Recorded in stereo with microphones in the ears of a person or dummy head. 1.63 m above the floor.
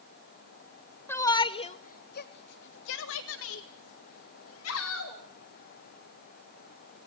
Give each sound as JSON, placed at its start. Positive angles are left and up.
{"t": 1.1, "sound": "a shout", "side_deg": 10, "distance_m": 1.0}